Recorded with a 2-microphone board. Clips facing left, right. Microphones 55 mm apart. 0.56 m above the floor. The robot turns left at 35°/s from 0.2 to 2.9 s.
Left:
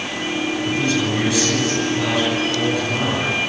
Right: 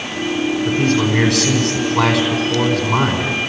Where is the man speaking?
40° right, 4.5 m; by 3.4 s 115° right, 4.5 m.